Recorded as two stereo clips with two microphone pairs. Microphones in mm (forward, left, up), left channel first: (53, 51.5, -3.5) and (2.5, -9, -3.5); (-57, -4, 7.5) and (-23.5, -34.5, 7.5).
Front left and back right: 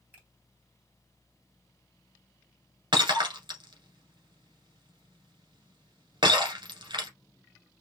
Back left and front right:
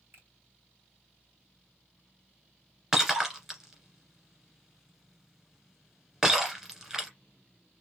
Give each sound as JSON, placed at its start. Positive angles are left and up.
{"t": 0.1, "sound": "a finger snap", "azimuth_deg": -65, "distance_m": 3.0}
{"t": 2.9, "sound": "breaking glass", "azimuth_deg": -120, "distance_m": 1.7}